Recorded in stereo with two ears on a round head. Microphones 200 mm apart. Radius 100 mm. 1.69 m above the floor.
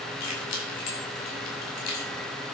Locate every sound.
0.2 s keys jangling: 80° left, 6.5 m; by 2.1 s 85° left, 5.5 m